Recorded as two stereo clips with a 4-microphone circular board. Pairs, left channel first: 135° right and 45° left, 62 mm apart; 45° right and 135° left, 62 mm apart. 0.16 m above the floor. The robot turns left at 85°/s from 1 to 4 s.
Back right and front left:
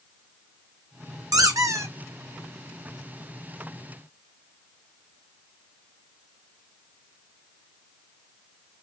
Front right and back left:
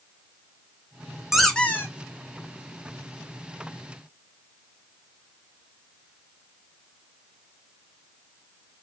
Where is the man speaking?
I don't hear a man speaking.